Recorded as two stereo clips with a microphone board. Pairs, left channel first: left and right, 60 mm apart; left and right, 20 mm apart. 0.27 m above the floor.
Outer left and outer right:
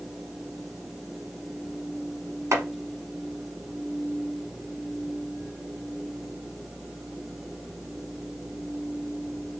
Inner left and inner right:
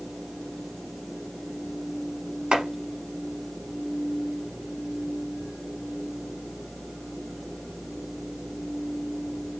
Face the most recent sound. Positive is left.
turn(degrees=-65)  # may be behind; listen again after turning